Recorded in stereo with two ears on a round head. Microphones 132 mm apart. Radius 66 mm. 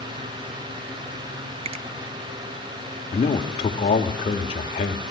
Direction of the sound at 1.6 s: 40° right (ahead or behind).